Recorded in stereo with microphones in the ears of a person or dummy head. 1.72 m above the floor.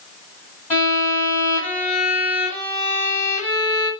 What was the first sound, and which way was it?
A violin, 15° left (ahead or behind).